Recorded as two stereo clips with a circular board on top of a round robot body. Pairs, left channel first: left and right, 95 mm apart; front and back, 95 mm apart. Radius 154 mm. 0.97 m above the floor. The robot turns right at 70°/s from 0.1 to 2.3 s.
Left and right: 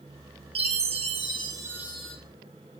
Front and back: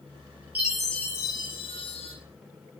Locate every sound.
0.6 s a chime: 105° right, 4 m; by 2.1 s 5° left, 4 m